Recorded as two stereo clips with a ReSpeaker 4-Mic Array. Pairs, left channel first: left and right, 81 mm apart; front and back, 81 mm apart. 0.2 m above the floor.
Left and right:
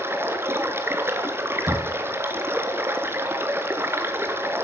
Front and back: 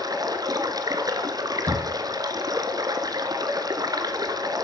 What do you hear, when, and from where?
0.0 s running water: 145° right, 1.2 m
1.7 s knocking: 170° right, 0.7 m